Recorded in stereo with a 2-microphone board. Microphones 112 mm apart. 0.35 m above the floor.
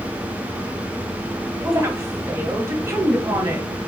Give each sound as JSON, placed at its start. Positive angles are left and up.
{"t": 1.6, "sound": "a woman speaking", "side_deg": -30, "distance_m": 1.9}